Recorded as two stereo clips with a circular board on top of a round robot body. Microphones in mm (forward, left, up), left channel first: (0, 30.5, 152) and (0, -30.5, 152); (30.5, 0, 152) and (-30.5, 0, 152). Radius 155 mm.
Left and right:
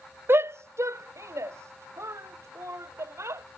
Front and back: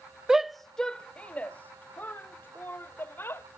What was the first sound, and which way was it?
A shout, 105° right.